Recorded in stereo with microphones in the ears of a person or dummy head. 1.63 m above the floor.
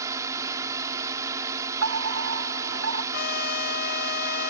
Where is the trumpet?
55° left (ahead or behind).